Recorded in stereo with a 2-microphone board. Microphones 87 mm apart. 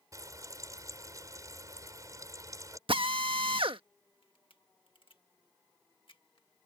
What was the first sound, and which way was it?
Frying, 40° right (ahead or behind).